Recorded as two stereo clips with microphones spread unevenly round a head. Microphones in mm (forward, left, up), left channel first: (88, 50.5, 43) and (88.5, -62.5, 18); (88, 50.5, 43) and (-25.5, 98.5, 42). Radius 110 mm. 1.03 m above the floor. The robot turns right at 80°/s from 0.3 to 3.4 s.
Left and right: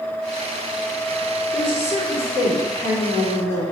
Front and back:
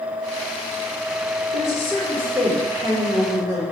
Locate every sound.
1.5 s a woman speaking: straight ahead, 1.6 m; by 3.6 s 150° left, 1.6 m